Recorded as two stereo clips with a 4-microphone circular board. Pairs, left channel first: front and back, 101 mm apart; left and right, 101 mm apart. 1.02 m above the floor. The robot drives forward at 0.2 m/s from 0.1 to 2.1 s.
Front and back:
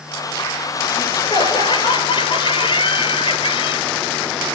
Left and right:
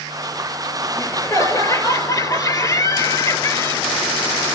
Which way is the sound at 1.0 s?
35° left.